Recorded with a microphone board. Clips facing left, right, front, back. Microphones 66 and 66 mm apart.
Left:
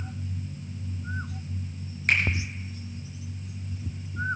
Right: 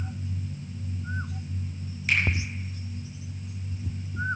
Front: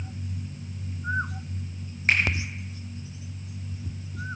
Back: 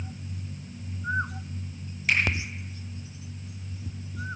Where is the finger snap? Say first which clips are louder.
Left 1 dB, front 2 dB; 50° left, 3.5 m.